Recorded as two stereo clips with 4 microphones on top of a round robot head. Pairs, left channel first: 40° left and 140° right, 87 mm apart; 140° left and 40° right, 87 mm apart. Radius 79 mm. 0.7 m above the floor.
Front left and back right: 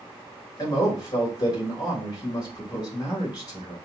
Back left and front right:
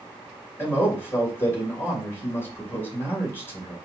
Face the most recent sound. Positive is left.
turn(degrees=75)